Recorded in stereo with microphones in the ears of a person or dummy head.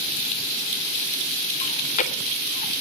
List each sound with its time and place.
1.6 s chewing: 40° left (ahead or behind), 1.4 m